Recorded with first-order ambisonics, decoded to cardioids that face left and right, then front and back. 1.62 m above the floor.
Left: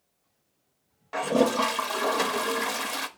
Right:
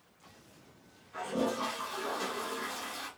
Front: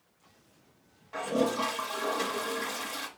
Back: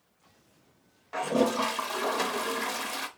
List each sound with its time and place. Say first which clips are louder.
1.1 s a toilet flushing: left 10 dB, back 3 dB; 110° left, 0.6 m